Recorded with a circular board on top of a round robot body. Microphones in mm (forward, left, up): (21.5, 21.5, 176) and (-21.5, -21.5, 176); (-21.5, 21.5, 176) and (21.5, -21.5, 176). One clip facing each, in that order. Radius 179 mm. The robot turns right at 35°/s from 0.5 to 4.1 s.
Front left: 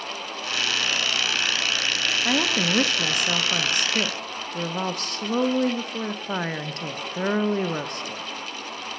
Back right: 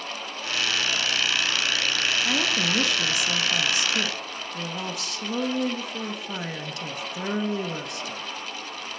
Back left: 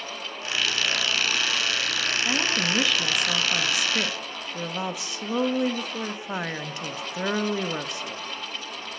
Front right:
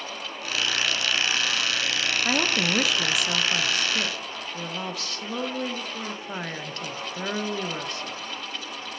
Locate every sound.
2.2 s a woman speaking: 5° left, 0.8 m; by 8.2 s 70° left, 0.8 m